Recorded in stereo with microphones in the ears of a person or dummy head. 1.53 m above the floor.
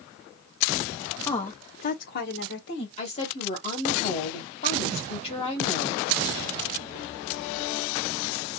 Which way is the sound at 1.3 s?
20° left (ahead or behind).